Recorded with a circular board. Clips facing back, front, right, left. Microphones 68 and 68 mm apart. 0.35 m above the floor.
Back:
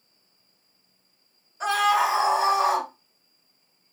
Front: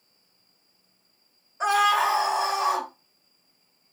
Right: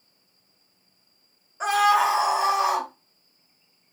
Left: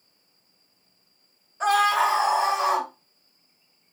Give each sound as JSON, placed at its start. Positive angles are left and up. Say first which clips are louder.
{"t": 1.6, "sound": "a scream", "louder": "even, right 1 dB", "azimuth_deg": -30, "distance_m": 0.9}